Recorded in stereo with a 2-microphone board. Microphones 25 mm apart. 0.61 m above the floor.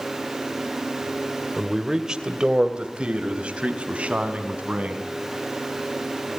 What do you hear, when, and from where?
1.6 s a man speaking: 15° right (ahead or behind), 1.7 m; by 5.0 s 55° right (ahead or behind), 4.5 m